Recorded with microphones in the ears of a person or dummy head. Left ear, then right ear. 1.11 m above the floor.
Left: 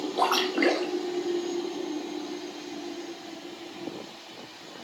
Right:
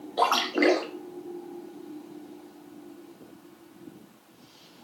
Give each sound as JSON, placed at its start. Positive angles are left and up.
{"t": 0.2, "sound": "a splash", "side_deg": -5, "distance_m": 0.7}